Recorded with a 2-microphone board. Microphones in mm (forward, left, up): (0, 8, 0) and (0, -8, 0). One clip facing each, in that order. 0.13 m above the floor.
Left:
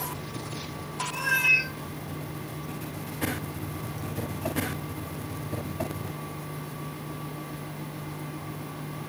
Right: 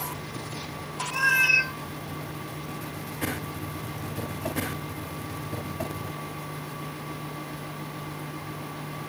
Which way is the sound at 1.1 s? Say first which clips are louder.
Right 2 dB; 50° right (ahead or behind).